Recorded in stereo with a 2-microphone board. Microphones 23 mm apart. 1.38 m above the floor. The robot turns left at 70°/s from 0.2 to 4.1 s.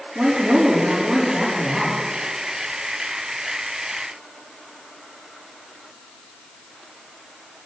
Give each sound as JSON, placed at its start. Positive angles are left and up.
{"t": 0.1, "sound": "a woman speaking", "azimuth_deg": -100, "distance_m": 3.5}